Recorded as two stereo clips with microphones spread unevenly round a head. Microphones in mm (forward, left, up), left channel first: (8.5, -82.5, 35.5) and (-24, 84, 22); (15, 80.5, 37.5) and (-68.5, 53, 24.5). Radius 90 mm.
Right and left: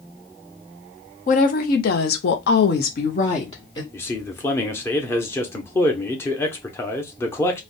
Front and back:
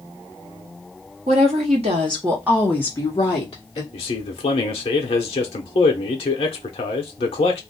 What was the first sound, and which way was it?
A woman speaking, 125° right.